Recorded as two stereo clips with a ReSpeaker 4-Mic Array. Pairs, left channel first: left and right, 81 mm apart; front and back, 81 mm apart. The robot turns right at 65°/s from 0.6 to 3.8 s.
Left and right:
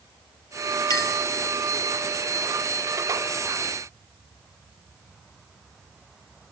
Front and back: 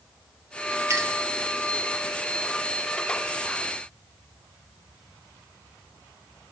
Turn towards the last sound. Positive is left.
turn(degrees=-45)